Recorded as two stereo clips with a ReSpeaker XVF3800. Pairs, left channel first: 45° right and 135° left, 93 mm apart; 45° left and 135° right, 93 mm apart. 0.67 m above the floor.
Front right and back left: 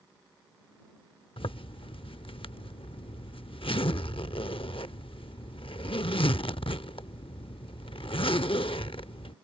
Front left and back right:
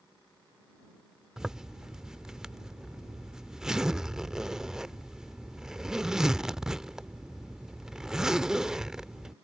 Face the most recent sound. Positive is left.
turn(degrees=-50)